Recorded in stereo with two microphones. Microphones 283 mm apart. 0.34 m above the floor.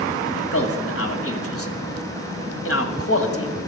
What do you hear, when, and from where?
0.3 s a man speaking: 55° left (ahead or behind), 1.7 m